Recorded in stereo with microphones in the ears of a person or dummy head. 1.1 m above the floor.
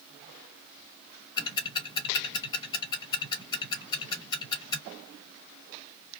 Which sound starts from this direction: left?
Ticking, at 1.4 s.